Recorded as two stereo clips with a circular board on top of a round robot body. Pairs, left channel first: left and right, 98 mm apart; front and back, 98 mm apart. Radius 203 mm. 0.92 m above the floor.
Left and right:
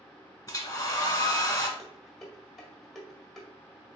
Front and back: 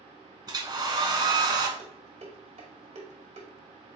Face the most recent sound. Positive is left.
turn(degrees=175)